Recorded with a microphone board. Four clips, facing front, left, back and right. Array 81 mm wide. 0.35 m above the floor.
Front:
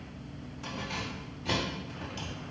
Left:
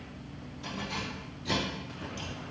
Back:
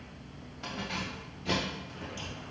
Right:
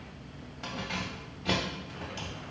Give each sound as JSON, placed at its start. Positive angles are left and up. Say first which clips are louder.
{"t": 0.6, "sound": "keys jangling", "louder": "right 1 dB, even", "azimuth_deg": -115, "distance_m": 1.4}